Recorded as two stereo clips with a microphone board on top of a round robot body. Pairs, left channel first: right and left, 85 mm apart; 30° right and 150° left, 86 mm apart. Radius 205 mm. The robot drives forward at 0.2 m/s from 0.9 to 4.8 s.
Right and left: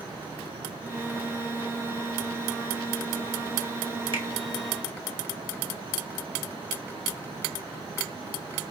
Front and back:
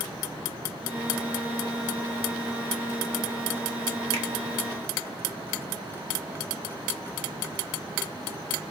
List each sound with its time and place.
4.1 s a finger snap: 110° left, 1.9 m